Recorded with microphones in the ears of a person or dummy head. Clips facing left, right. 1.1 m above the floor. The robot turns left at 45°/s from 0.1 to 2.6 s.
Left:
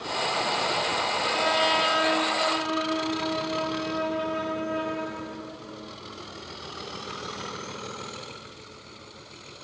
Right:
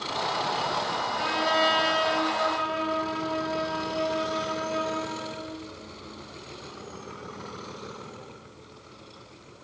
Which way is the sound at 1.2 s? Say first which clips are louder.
Right 1 dB; 10° right.